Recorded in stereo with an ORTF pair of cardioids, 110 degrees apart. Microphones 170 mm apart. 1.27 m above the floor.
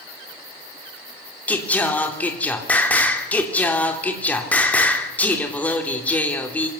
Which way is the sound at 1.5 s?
10° left.